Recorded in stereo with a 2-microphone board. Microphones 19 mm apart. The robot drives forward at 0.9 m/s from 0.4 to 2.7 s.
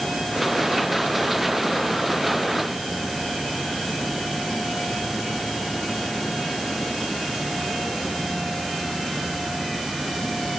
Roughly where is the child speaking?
I don't hear a child speaking.